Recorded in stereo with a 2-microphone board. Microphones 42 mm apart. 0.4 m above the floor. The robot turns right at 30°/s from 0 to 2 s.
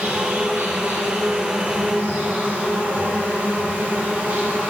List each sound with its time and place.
0.0 s an insect: 95° right, 3.5 m; by 4.7 s 35° right, 3.5 m